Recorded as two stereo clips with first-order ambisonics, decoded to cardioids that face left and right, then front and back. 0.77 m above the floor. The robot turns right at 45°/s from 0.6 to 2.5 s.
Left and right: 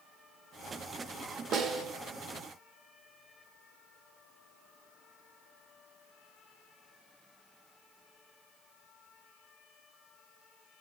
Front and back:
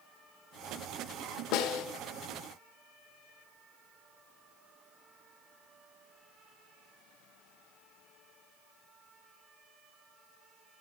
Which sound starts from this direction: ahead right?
A snare drum, at 1.5 s.